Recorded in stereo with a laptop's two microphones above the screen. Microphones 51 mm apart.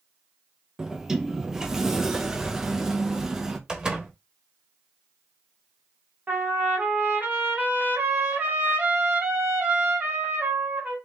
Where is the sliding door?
10° right (ahead or behind), 0.7 m.